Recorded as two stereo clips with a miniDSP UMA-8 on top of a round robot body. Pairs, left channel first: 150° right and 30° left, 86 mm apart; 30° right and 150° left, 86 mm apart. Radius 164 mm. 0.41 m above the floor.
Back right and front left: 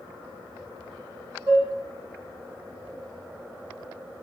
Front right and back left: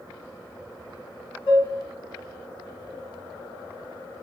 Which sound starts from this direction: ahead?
Dishes clattering, at 1.5 s.